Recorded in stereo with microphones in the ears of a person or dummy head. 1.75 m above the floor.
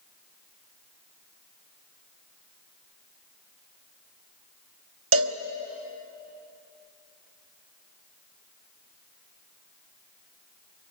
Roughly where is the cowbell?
Right.